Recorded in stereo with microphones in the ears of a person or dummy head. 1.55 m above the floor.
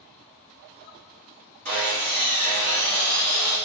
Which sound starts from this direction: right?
Sawing, at 1.6 s.